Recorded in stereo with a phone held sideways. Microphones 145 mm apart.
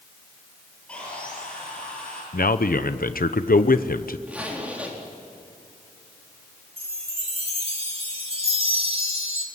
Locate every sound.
0.9 s sawing: 10° left (ahead or behind), 9.5 m
2.3 s a man speaking: 90° left, 0.8 m
4.3 s a zipper: 10° right (ahead or behind), 4 m
6.8 s a chime: 40° right (ahead or behind), 2.5 m